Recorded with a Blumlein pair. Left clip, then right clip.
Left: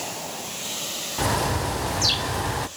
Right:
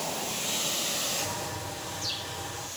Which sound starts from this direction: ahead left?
A bird, at 1.2 s.